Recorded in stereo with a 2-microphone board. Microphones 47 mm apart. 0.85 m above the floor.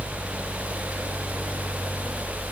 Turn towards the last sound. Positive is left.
No sound to turn to.